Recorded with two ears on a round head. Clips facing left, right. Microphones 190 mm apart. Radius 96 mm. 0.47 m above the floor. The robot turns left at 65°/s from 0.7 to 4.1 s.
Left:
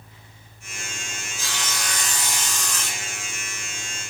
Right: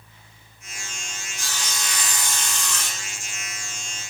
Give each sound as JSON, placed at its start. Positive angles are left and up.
{"t": 1.4, "sound": "sawing", "azimuth_deg": 5, "distance_m": 0.9}